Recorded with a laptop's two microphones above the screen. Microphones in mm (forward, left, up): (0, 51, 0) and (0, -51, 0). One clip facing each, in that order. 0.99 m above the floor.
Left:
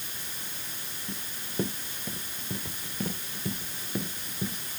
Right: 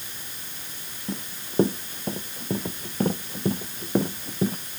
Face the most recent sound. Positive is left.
turn(degrees=-50)  # may be behind; listen again after turning